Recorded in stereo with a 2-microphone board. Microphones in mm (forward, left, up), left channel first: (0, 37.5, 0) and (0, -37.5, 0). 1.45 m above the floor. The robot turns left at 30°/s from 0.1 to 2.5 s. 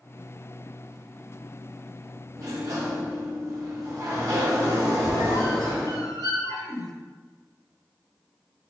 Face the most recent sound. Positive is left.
turn(degrees=45)  # may be behind; listen again after turning